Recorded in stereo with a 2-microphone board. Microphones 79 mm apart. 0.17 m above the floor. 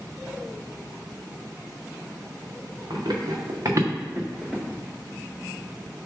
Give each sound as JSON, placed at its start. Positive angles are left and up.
{"t": 2.9, "sound": "running footsteps", "side_deg": -70, "distance_m": 1.5}